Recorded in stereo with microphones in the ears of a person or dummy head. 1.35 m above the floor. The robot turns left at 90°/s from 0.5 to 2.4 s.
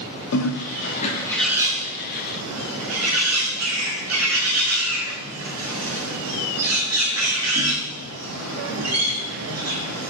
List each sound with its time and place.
0.3 s a bird: 85° left, 0.5 m; by 10.1 s 90° right, 0.5 m